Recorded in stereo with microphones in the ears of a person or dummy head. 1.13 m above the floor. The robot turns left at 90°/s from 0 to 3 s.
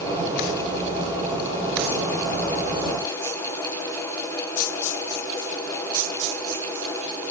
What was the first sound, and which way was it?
Only background noise.